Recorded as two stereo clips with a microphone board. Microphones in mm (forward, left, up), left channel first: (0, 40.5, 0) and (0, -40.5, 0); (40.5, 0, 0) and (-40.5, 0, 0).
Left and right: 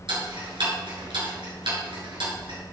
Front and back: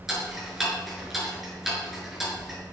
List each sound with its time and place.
0.1 s ticking: 95° right, 6 m